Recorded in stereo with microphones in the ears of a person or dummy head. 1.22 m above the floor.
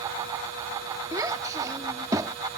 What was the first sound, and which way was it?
A child speaking, 15° right (ahead or behind).